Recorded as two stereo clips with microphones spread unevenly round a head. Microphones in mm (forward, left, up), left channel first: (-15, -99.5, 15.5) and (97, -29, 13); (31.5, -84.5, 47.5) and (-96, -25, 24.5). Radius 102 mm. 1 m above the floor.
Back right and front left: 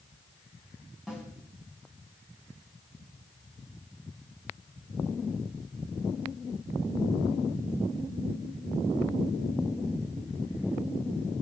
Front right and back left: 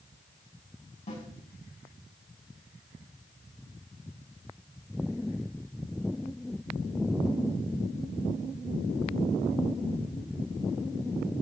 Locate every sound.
1.1 s a snare drum: 55° right, 5.5 m